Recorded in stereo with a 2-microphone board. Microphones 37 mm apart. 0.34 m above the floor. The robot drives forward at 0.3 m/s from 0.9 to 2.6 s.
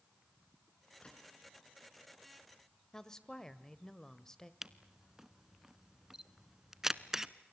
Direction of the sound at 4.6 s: 15° right (ahead or behind).